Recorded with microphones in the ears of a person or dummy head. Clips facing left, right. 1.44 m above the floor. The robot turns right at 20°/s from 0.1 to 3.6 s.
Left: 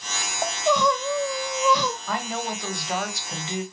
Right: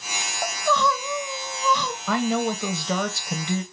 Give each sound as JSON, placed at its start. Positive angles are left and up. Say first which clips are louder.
{"t": 0.4, "sound": "crying", "louder": "left 2 dB", "azimuth_deg": 10, "distance_m": 0.7}
{"t": 2.1, "sound": "a woman speaking", "louder": "right 6 dB", "azimuth_deg": -110, "distance_m": 1.0}